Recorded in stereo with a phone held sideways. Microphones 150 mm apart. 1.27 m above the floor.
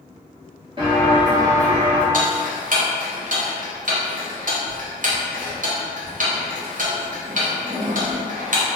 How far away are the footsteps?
About 1.5 m.